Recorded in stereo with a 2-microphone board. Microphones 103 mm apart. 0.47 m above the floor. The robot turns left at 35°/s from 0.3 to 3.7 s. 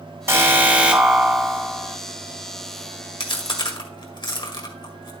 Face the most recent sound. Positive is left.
turn(degrees=50)  # may be behind; listen again after turning